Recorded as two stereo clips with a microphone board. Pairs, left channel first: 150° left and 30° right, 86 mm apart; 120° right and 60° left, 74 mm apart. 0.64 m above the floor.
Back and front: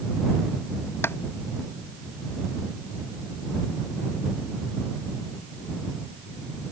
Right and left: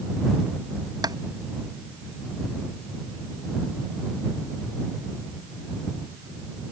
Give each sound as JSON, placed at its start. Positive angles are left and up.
{"t": 1.0, "sound": "tapping", "azimuth_deg": 85}